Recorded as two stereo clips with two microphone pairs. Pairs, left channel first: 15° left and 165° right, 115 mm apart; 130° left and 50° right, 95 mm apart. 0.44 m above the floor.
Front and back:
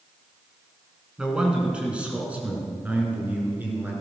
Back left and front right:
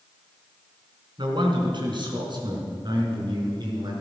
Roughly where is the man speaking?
Right.